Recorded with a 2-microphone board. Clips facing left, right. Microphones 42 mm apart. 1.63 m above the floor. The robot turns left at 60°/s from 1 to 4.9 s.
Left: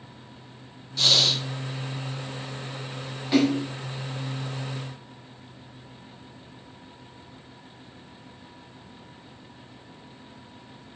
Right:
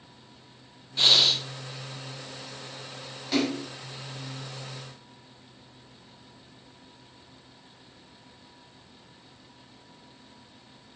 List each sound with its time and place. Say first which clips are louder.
1.0 s breathing: even; 25° right (ahead or behind), 1.1 m; by 1.4 s centre (ahead or behind), 1.1 m
3.3 s a splash: left 6 dB; 15° left (ahead or behind), 4.5 m; by 3.6 s 35° left (ahead or behind), 4.5 m